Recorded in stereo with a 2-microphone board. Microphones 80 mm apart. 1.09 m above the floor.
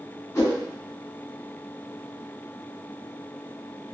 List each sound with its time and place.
0.3 s a whoosh: 35° left (ahead or behind), 1.4 m